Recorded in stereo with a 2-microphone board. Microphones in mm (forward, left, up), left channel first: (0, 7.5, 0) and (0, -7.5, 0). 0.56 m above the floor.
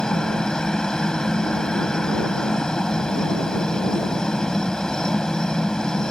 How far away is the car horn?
I don't hear a car horn.